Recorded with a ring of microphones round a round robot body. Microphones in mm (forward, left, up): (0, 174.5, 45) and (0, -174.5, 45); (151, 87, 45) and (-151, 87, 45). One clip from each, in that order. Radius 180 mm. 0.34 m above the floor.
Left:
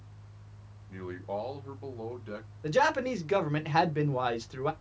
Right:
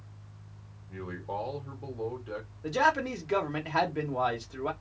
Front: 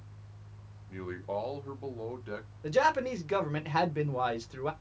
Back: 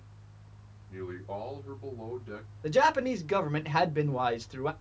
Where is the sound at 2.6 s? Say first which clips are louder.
Even, back 2 dB; 105° left, 0.8 m.